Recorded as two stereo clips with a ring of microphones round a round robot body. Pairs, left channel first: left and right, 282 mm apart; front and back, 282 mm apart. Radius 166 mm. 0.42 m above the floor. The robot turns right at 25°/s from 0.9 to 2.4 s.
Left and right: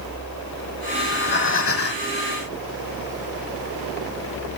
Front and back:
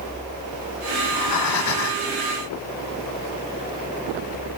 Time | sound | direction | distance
1.0 | breathing | 30° left | 0.7 m